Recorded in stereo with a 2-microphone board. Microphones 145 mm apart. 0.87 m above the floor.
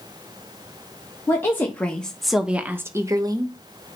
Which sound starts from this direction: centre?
A woman speaking, at 1.3 s.